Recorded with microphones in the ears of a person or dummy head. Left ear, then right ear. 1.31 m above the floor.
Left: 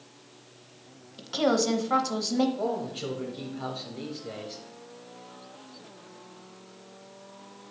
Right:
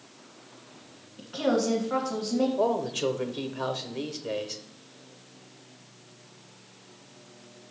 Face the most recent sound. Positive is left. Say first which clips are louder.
# right 5 dB
turn(degrees=-45)  # may be behind; listen again after turning